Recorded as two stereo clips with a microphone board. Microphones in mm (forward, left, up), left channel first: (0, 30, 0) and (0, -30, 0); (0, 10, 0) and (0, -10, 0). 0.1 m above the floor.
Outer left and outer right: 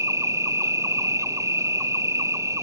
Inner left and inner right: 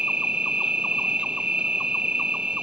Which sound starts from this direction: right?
An insect, at 0.0 s.